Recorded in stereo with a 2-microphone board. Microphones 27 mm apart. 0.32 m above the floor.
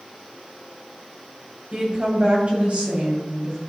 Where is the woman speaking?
35° right (ahead or behind), 2 m; by 3.6 s 55° right (ahead or behind), 3 m.